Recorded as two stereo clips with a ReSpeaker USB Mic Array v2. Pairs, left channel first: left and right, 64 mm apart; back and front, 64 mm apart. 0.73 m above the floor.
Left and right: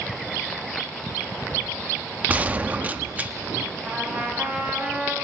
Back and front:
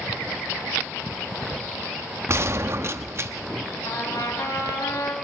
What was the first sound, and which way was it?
A gunshot, 30° right.